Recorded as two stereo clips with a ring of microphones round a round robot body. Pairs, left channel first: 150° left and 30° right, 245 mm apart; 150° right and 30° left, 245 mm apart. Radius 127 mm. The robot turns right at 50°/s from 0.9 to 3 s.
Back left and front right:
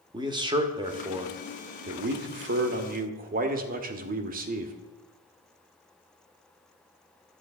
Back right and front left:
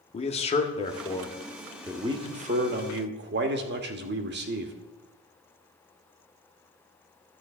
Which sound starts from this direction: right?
A man speaking, at 0.1 s.